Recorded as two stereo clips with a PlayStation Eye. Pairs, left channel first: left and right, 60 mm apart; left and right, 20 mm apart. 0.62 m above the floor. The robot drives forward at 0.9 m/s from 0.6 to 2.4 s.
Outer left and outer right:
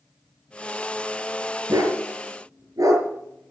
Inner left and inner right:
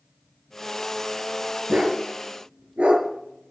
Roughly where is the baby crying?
No baby crying in this recording.